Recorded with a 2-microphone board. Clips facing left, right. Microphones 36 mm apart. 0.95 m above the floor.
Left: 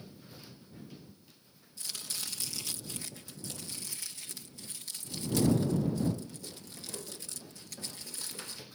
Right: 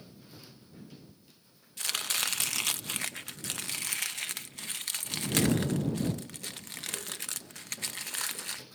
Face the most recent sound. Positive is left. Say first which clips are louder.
# right 10 dB
turn(degrees=-65)  # may be behind; listen again after turning